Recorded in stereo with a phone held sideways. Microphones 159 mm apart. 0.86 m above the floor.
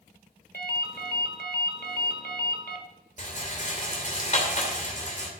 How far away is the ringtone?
About 1.4 m.